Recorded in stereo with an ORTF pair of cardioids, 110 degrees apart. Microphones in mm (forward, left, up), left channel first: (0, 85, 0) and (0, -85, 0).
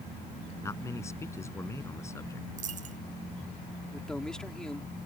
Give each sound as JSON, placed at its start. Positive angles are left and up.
{"t": 0.6, "sound": "a man speaking", "azimuth_deg": 15}
{"t": 2.6, "sound": "a dropped coin", "azimuth_deg": -50}
{"t": 3.9, "sound": "a man speaking", "azimuth_deg": 5}